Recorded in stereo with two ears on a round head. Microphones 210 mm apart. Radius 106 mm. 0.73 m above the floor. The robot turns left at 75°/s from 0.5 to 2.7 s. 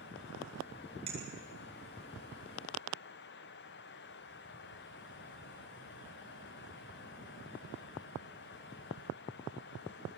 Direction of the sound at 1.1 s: 25° right (ahead or behind).